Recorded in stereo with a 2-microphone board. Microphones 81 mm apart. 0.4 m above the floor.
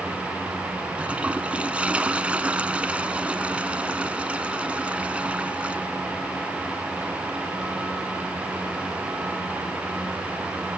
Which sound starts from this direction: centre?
A toilet flushing, at 1.0 s.